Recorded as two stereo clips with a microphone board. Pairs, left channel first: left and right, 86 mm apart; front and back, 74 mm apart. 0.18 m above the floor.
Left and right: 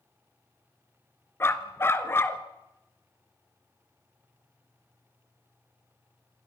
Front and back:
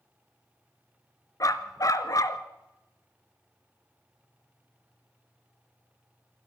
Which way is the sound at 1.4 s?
30° left.